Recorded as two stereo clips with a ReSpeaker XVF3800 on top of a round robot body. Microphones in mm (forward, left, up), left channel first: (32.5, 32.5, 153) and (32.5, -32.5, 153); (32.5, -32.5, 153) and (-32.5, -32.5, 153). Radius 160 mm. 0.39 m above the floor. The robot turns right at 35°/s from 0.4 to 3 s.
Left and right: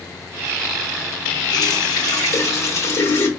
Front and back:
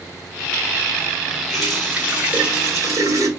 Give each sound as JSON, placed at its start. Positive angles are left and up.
{"t": 1.5, "sound": "a running tap", "azimuth_deg": 85, "distance_m": 2.5}